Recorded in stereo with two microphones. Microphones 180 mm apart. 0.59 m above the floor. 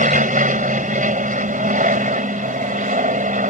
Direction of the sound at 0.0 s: 45° right (ahead or behind).